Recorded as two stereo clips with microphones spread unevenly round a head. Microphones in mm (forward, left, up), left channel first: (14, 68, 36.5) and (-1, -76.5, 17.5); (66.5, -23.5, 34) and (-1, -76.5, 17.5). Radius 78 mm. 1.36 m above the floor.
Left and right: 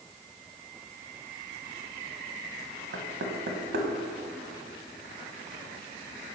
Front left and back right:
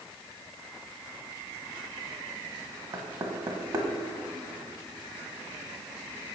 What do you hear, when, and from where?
2.9 s knocking: 105° right, 1.4 m